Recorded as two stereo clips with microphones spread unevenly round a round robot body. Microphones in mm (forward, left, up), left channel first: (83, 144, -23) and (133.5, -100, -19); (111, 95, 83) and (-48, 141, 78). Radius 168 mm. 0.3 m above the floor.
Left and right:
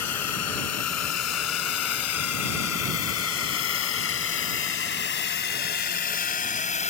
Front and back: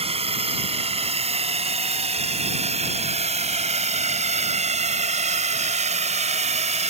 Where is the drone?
115° left; by 6.9 s 155° left.